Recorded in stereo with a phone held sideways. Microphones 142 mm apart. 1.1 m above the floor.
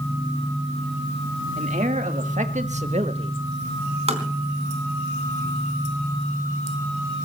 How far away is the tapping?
About 3.5 m.